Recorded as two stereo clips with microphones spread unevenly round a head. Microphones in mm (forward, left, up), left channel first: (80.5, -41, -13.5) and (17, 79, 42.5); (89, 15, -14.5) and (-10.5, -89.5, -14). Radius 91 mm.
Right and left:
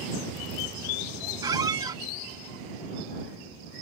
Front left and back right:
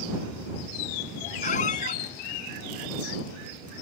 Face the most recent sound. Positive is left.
turn(degrees=80)